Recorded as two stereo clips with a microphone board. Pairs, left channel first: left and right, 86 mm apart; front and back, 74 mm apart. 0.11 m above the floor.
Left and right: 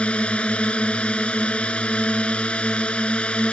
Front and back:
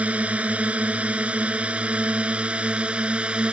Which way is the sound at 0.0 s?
145° left.